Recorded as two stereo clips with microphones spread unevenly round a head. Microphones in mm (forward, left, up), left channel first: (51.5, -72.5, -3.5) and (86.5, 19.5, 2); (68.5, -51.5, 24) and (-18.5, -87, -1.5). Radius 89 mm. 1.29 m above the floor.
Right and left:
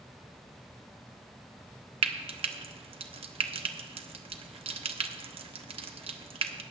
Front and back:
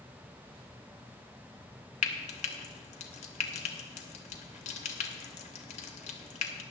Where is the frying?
45° left, 1.0 m.